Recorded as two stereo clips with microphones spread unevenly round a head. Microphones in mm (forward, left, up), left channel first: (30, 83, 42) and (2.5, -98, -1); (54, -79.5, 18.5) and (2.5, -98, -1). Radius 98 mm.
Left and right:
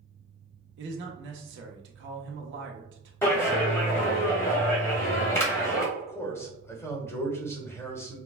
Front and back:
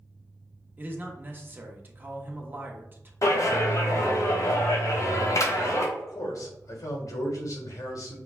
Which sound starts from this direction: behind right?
A man speaking, at 0.8 s.